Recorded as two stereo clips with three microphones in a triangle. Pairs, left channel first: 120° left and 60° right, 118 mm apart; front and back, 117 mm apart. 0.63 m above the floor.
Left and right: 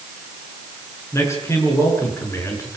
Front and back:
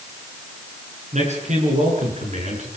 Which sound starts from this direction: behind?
A man speaking, at 1.1 s.